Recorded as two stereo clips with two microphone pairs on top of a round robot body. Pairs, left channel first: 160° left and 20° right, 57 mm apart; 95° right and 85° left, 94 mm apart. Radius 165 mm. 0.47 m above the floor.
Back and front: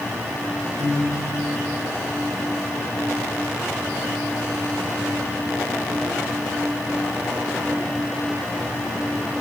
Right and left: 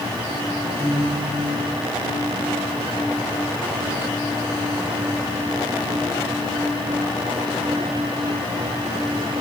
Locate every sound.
0.8 s a guitar: 20° right, 6.5 m